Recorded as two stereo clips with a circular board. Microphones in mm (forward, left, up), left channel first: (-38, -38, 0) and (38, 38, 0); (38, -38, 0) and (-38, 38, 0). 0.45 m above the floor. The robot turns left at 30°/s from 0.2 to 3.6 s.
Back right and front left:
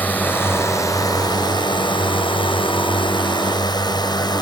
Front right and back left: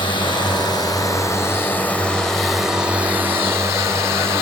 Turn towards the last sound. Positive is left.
turn(degrees=-170)